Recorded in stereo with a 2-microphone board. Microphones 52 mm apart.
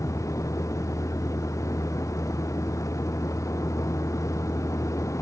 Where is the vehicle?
85° left; by 5.2 s 80° left.